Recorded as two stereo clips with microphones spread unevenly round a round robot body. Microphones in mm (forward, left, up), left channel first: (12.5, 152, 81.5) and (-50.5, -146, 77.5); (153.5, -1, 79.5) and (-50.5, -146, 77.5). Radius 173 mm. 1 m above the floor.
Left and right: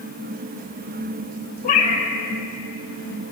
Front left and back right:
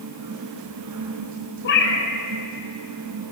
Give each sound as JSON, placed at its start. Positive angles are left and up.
{"t": 1.6, "sound": "a cat meowing", "azimuth_deg": 20, "distance_m": 1.1}